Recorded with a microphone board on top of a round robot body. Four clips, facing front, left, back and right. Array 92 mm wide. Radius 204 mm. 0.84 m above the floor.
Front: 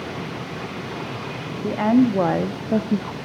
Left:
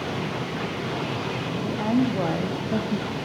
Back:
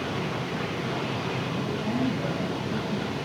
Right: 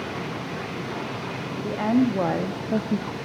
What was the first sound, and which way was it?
A woman speaking, 15° right.